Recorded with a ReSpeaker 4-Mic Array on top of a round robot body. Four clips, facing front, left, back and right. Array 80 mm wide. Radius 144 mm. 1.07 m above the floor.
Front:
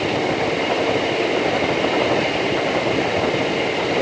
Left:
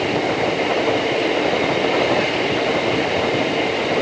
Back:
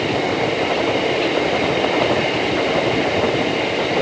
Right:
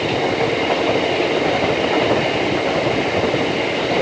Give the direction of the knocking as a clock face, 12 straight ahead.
I don't hear knocking.